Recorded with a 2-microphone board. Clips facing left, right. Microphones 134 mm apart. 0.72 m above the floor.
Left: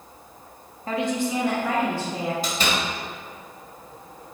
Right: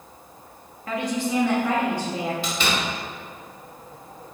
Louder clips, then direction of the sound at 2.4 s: Even; 45° left (ahead or behind).